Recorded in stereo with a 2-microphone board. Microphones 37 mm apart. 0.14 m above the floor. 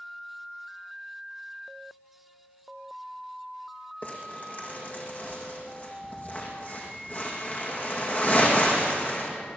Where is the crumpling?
50° left (ahead or behind), 5.5 m.